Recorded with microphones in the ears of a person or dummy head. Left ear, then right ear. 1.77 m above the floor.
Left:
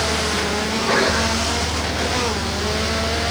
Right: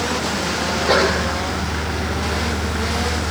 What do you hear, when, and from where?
0.7 s a sneeze: 15° right (ahead or behind), 7.5 m